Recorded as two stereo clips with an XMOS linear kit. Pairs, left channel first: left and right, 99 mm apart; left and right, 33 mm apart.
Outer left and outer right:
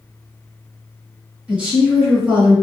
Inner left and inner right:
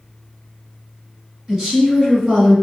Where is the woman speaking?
15° right (ahead or behind), 1.5 m.